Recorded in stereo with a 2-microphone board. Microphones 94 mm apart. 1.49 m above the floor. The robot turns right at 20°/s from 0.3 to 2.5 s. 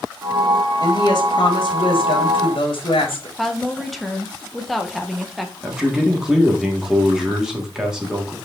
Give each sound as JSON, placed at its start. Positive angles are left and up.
{"t": 0.8, "sound": "a woman speaking", "azimuth_deg": 50, "distance_m": 3.5}
{"t": 3.4, "sound": "a woman speaking", "side_deg": 0, "distance_m": 1.6}
{"t": 5.6, "sound": "a man speaking", "side_deg": -5, "distance_m": 3.5}